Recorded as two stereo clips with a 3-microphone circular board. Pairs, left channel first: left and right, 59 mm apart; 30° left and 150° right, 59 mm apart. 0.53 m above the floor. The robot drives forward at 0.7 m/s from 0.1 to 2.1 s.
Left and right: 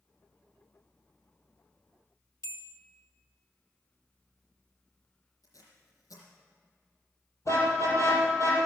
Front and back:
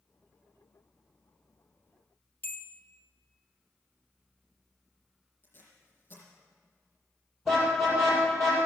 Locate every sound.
2.4 s a bell: 85° left, 1.3 m
5.4 s tape being pulled: 85° left, 4 m
7.5 s a car horn: 115° left, 7 m